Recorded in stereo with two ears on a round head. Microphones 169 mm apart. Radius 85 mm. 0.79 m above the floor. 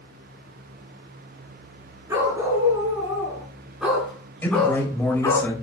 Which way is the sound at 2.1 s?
15° right (ahead or behind).